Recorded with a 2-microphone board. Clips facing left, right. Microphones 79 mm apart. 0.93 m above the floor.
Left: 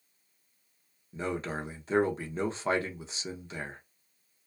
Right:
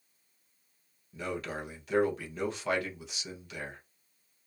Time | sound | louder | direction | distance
1.1 | a man speaking | left 3 dB | 30° left (ahead or behind) | 0.6 m